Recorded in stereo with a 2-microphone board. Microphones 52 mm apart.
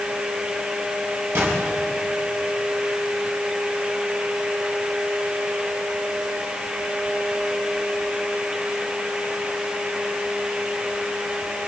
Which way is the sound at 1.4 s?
55° right (ahead or behind).